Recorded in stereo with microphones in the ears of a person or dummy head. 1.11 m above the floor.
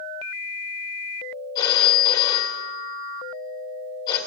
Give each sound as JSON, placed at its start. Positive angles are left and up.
{"t": 1.6, "sound": "a phone ringing", "side_deg": 20, "distance_m": 2.5}